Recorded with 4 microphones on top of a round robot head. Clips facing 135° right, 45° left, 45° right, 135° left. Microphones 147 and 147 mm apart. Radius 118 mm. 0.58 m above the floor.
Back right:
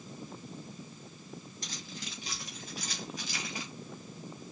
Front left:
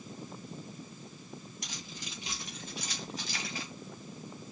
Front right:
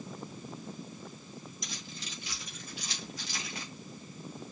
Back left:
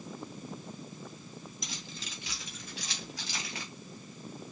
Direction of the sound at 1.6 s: 120° left.